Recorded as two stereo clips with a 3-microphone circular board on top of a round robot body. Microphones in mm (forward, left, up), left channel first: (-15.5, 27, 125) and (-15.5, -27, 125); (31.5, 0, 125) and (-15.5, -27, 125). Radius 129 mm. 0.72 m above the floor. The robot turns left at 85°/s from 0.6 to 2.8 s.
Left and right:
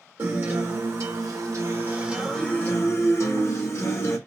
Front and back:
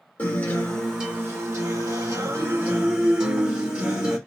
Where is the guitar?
40° right, 1.5 m; by 4.2 s 135° left, 1.5 m.